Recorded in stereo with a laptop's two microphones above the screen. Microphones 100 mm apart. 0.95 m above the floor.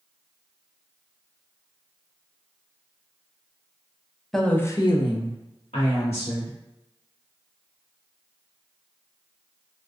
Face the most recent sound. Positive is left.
turn(degrees=80)